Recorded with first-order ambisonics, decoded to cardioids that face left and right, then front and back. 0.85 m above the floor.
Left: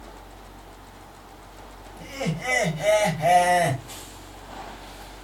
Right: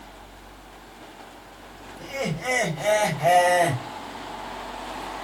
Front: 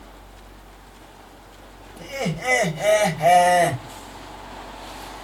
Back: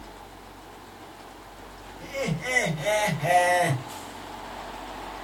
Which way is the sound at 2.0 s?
10° right.